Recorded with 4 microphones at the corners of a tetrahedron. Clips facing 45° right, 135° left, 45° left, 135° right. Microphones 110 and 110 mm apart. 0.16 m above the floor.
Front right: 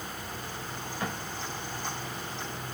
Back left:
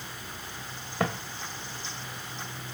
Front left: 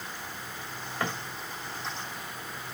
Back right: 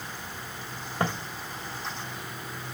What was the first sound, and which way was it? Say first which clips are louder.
Footsteps: back left 6 dB, back right 4 dB; 170° left.